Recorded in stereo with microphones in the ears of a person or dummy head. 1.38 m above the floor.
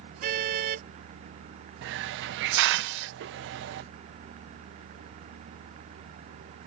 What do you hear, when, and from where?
0.2 s a car horn: 45° right (ahead or behind)
1.8 s a hiss: 60° right (ahead or behind)